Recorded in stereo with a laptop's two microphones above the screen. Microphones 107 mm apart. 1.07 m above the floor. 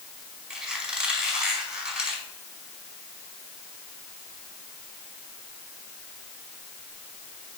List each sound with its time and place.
0.5 s a squeak: 5° right (ahead or behind), 5 m